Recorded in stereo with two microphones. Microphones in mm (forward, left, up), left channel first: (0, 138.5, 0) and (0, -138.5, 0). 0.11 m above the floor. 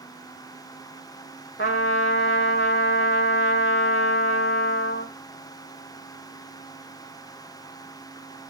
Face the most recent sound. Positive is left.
turn(degrees=40)  # may be behind; listen again after turning